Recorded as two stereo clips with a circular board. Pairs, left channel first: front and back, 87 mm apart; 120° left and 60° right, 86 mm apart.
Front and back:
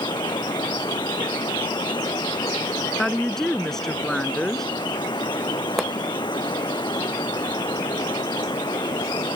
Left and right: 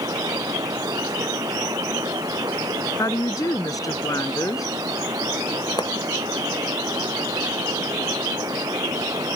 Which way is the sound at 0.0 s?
25° right.